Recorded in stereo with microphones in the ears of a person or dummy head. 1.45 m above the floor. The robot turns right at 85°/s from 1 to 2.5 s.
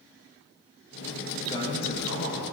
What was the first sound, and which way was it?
A man speaking, 20° left.